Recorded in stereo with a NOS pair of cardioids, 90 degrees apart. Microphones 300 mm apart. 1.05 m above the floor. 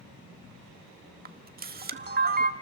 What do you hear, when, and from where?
1.2 s a camera shutter: 30° right, 1.8 m